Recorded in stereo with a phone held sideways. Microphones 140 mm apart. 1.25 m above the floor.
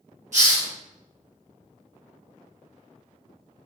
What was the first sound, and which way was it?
A hiss, 60° right (ahead or behind).